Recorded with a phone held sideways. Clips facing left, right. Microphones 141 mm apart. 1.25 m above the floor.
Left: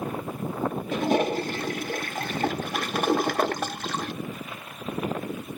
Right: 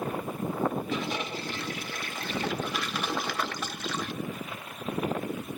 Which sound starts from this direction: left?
A toilet flushing, at 0.9 s.